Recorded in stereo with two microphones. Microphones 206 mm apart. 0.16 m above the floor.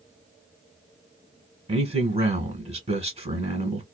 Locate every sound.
1.7 s a man speaking: 30° right (ahead or behind), 1.6 m